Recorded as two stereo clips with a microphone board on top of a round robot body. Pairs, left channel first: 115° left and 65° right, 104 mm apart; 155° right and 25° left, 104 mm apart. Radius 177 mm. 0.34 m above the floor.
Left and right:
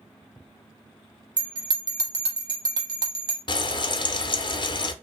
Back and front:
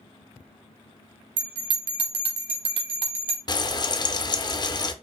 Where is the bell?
15° right, 0.7 m.